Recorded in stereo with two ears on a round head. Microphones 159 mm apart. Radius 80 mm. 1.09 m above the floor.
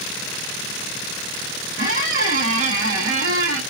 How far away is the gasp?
No gasp in this recording.